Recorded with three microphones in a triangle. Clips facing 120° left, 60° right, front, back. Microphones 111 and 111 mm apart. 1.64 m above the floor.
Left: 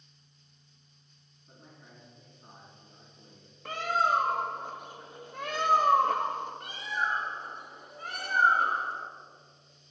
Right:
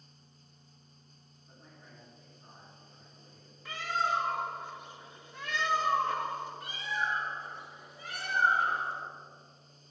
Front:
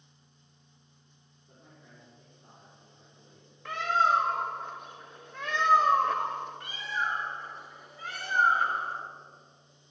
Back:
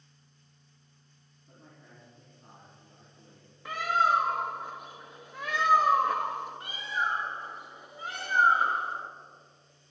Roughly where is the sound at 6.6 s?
Behind left.